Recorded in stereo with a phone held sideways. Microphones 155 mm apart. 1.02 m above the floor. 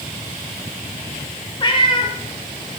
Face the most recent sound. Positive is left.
turn(degrees=30)  # may be behind; listen again after turning